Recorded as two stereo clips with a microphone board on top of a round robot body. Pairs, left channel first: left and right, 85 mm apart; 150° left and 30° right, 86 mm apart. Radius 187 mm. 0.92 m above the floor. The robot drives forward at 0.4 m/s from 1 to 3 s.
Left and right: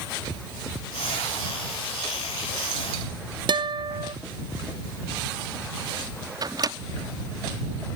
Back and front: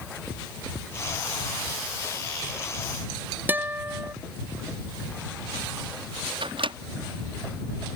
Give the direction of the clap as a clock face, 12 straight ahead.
I don't hear a clap.